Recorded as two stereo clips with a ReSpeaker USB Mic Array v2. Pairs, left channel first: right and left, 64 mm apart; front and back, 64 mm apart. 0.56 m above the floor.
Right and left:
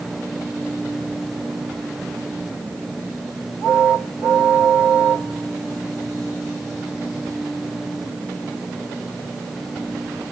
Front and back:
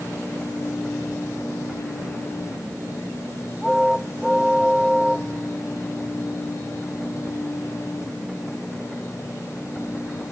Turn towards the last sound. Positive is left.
No sound to turn to.